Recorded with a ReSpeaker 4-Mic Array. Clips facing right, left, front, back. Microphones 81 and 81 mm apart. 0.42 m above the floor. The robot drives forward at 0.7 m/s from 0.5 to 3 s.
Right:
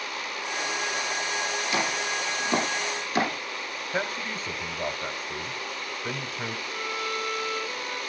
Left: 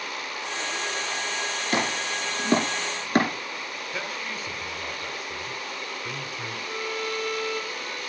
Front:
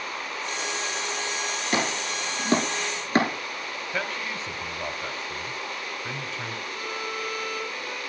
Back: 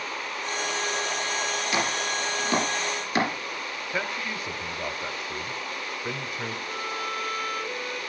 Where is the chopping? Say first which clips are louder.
Left 3 dB, front 2 dB; 45° left, 6.5 m; by 3.3 s 55° left, 6 m.